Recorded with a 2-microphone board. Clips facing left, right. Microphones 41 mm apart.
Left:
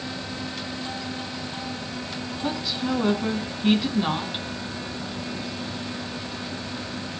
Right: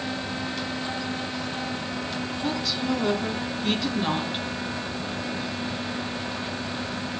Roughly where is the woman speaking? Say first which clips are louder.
Left 1 dB; centre.